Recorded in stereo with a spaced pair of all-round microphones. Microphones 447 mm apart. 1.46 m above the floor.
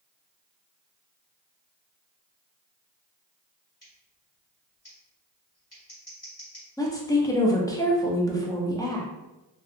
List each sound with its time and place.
3.8 s scissors: 55° left (ahead or behind), 1.7 m
6.8 s a woman speaking: 10° left (ahead or behind), 0.5 m